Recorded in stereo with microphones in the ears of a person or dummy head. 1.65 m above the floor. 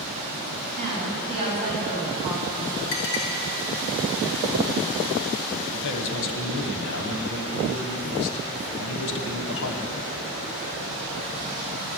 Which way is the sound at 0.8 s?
35° right (ahead or behind).